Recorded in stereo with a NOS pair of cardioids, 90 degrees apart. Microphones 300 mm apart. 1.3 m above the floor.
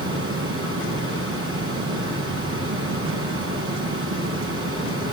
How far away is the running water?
About 8.5 m.